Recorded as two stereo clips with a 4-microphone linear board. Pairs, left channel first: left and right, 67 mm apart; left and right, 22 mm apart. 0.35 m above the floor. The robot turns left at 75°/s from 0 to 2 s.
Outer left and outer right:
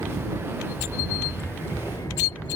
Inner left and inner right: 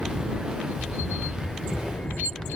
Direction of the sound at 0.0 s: 75° right (ahead or behind).